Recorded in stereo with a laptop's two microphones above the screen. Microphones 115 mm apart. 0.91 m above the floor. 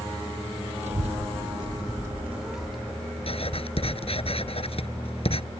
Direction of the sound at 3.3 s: 55° left (ahead or behind).